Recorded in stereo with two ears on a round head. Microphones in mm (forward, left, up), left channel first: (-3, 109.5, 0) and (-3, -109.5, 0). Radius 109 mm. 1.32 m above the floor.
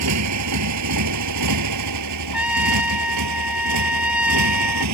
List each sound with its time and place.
0.0 s a motorcycle: 75° right (ahead or behind)
2.3 s a trumpet: 5° right (ahead or behind)